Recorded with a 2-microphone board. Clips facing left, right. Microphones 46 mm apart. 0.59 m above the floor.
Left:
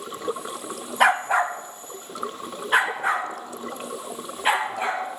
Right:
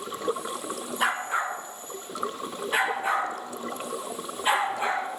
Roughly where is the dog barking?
Left.